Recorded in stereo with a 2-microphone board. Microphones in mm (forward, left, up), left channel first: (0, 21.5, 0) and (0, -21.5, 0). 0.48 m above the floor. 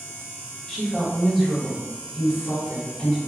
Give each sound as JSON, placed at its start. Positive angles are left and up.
{"t": 0.7, "sound": "a woman speaking", "side_deg": 15, "distance_m": 1.8}